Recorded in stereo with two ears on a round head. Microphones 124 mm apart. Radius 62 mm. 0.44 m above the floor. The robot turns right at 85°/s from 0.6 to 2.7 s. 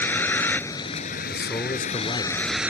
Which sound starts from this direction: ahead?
A vehicle, at 0.0 s.